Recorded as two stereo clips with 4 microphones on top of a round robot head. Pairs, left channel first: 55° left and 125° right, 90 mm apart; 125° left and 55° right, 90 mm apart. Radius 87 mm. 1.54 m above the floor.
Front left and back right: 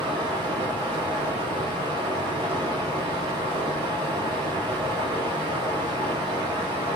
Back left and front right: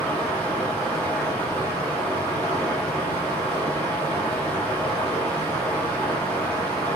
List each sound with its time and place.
0.0 s running water: 160° right, 0.7 m